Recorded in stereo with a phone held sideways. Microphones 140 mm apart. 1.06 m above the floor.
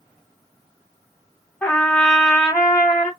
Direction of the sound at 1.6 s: 10° left (ahead or behind).